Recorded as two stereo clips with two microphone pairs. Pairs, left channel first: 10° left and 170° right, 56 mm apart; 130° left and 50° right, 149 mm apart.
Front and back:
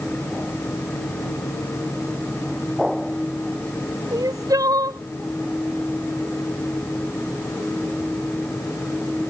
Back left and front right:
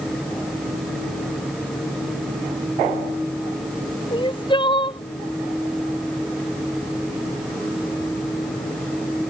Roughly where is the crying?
Behind.